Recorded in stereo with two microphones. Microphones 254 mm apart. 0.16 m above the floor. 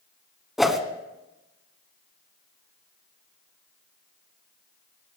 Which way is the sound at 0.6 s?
Centre (ahead or behind).